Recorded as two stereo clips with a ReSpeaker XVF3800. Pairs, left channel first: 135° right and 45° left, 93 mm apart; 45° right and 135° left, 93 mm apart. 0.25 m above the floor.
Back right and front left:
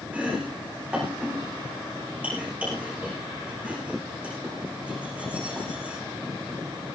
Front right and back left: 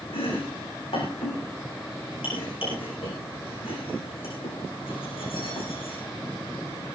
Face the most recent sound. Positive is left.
turn(degrees=-30)